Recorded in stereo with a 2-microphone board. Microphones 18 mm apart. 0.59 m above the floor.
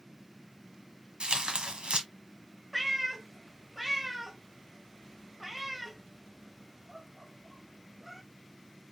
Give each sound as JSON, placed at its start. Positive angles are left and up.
{"t": 1.2, "sound": "tearing paper", "side_deg": -70, "distance_m": 1.1}
{"t": 2.7, "sound": "a cat meowing", "side_deg": -10, "distance_m": 0.9}